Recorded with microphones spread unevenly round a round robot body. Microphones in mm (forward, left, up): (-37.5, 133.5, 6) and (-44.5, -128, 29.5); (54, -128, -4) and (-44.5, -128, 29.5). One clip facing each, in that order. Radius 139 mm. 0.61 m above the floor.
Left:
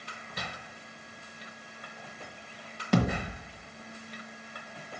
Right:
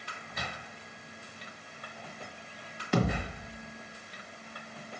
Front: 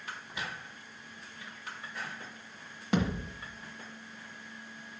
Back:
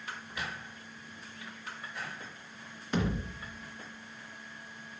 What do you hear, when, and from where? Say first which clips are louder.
0.3 s footsteps: even, even; 30° left, 3 m
2.9 s a thud: left 2 dB, front 2 dB; 35° left, 1.4 m